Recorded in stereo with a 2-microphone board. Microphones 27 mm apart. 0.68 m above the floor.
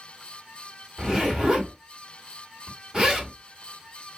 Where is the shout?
I don't hear a shout.